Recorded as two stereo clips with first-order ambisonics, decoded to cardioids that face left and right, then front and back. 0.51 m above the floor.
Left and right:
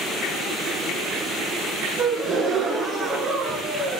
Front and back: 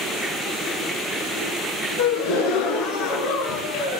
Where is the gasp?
20° right, 1.8 m.